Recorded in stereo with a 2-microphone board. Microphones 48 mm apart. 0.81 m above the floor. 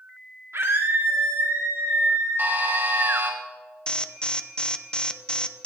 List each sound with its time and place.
0.5 s a scream: 60° right (ahead or behind), 1.6 m
2.4 s a buzzer: 50° right (ahead or behind), 2.5 m
3.9 s an alarm: 20° left (ahead or behind), 0.7 m